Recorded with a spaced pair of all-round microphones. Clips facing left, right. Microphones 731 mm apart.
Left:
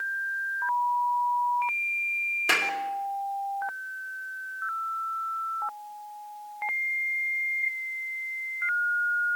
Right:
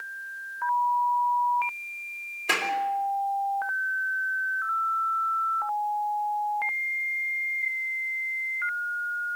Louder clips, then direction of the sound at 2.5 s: Right 1 dB; 45° left (ahead or behind).